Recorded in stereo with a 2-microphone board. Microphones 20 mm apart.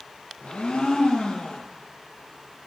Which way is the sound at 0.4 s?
70° left (ahead or behind).